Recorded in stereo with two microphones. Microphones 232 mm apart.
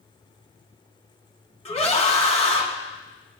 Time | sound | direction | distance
1.6 | a scream | 30° left (ahead or behind) | 2 m